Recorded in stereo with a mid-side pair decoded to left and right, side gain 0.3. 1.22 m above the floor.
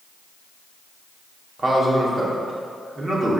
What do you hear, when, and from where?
1.6 s a man speaking: 45° right, 2.5 m